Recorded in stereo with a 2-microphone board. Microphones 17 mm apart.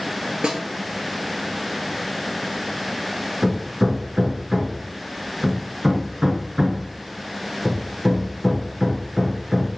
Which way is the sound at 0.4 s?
60° right (ahead or behind).